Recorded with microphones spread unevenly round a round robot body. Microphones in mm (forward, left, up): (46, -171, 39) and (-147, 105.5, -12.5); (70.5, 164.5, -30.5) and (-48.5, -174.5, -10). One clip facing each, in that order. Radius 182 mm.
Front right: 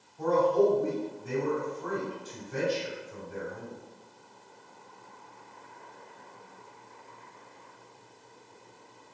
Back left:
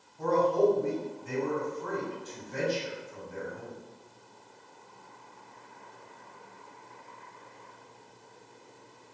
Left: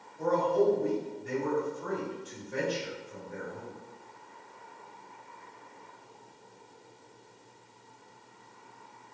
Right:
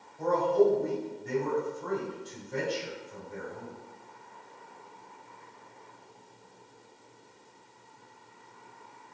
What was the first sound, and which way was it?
A man speaking, straight ahead.